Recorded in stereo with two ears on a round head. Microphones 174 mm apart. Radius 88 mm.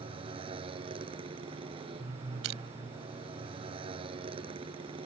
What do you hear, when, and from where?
0.0 s a motorcycle: 30° right (ahead or behind)
2.4 s crushing: 80° right